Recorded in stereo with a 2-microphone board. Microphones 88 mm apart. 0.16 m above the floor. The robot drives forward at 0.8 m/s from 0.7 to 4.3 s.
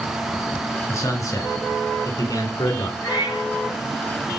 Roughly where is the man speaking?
Left.